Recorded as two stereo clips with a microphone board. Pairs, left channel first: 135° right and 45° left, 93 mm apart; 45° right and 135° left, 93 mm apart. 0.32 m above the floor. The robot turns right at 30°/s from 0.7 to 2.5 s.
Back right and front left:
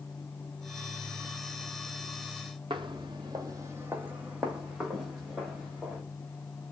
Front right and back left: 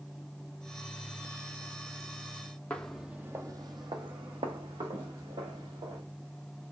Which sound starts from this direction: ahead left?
Footsteps, at 2.7 s.